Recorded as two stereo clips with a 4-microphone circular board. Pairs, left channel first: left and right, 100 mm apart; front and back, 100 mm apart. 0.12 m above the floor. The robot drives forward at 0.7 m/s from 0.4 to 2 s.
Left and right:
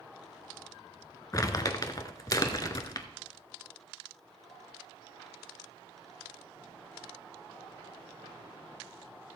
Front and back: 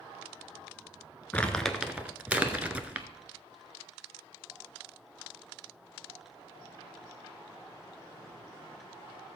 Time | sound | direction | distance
1.3 | crumpling | 65° left | 1.0 m